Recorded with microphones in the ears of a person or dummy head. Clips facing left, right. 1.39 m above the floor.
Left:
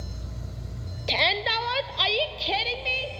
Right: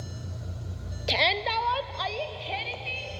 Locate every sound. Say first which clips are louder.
1.1 s a shout: even; 10° right (ahead or behind), 0.7 m; by 3.1 s 70° left (ahead or behind), 1.2 m